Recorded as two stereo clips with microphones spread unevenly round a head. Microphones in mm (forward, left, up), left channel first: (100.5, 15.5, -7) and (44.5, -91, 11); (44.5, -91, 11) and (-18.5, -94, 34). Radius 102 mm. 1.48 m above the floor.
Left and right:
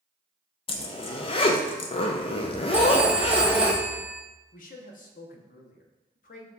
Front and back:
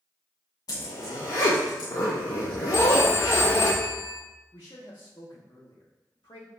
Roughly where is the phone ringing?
Ahead right.